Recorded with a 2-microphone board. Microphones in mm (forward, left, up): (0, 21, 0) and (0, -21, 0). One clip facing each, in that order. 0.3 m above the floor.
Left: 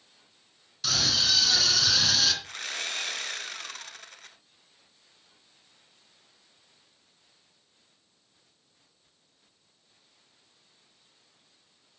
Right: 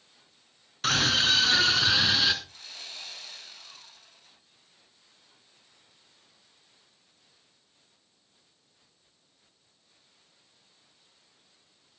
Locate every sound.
0.8 s a scream: 45° right (ahead or behind), 3 m; by 2.3 s 20° right (ahead or behind), 3 m
2.4 s sawing: 80° left, 1.2 m